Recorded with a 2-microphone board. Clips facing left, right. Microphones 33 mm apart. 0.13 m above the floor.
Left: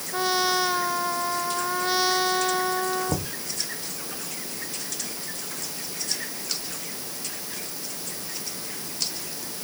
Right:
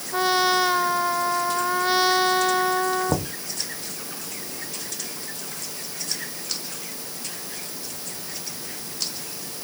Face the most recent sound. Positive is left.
turn(degrees=-25)  # may be behind; listen again after turning